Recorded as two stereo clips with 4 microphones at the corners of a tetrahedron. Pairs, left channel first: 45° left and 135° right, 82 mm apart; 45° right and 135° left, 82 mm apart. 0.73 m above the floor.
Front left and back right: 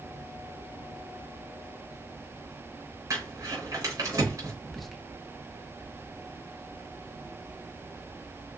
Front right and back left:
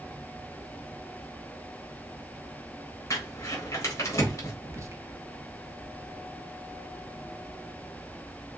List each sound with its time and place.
3.1 s crumpling: 90° right, 3.5 m
4.6 s whispering: 130° left, 0.8 m